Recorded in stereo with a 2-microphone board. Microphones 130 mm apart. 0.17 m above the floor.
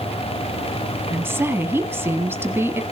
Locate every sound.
1.1 s a woman speaking: 20° right (ahead or behind), 1.3 m